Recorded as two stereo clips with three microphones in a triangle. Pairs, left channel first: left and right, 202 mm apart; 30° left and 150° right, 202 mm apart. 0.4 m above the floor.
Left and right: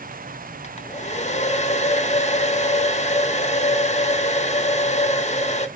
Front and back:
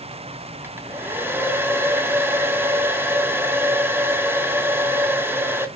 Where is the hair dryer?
135° left, 1.0 m.